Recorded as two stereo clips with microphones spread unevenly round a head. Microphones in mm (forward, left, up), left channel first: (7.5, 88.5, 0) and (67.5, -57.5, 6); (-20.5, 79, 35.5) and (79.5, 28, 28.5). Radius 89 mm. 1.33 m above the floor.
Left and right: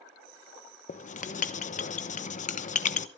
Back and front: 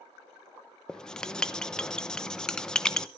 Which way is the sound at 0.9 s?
70° left.